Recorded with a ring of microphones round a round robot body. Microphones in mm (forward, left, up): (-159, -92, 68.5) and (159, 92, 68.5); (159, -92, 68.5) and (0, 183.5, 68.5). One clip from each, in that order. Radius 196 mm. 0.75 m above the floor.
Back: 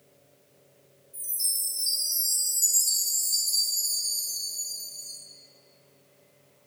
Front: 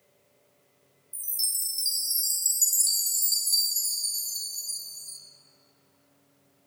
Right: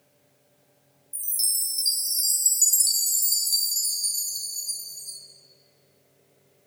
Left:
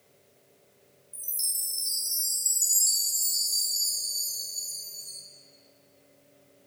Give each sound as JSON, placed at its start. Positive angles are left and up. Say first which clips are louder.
{"t": 1.1, "sound": "a chime", "louder": "front 1 dB, right 5 dB", "azimuth_deg": 0, "distance_m": 1.0}